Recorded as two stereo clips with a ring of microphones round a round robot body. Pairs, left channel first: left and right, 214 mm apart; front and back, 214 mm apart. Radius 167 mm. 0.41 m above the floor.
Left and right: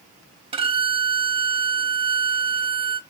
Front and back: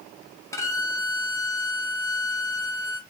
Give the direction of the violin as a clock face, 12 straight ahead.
2 o'clock.